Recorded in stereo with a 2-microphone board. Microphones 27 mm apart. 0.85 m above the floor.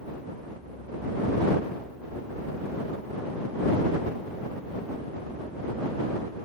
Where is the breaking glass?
I don't hear breaking glass.